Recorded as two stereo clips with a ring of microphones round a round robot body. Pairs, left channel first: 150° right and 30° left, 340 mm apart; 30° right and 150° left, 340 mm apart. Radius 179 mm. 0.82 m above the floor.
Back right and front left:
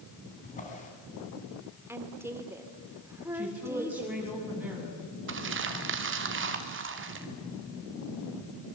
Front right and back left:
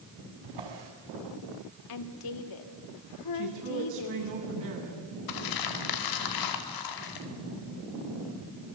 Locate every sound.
0.4 s a drawer: 140° left, 4.5 m
1.9 s a woman speaking: 55° right, 2 m
3.3 s a woman speaking: 115° left, 8 m
5.3 s crumpling: 25° right, 2.5 m